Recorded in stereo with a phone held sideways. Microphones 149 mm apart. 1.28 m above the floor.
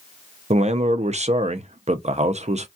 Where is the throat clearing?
I don't hear throat clearing.